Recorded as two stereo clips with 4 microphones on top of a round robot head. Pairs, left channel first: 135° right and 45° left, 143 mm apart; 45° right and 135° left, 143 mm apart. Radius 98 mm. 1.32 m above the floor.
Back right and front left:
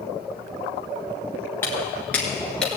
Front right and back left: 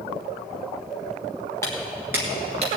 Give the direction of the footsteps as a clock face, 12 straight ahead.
3 o'clock.